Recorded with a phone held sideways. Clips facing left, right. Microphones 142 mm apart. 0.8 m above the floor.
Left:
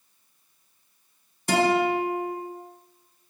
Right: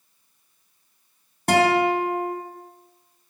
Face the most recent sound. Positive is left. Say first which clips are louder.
# right 3 dB
turn(degrees=-65)  # may be behind; listen again after turning